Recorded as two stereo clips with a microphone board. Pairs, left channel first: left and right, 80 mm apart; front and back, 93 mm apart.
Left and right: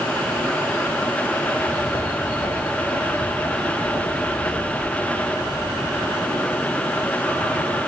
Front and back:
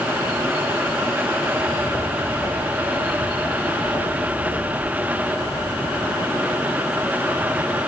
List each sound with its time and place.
1.5 s footsteps: 75° left, 4 m; by 6.1 s 35° left, 6 m